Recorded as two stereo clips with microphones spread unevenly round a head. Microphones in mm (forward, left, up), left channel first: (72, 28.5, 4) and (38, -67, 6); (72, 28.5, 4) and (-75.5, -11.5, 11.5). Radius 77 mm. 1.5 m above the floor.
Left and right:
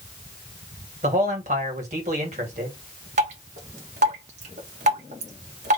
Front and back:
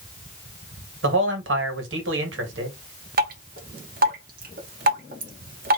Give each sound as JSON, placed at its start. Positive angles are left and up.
{"t": 1.0, "sound": "a man speaking", "azimuth_deg": -150, "distance_m": 2.0}
{"t": 3.2, "sound": "dripping", "azimuth_deg": -130, "distance_m": 1.6}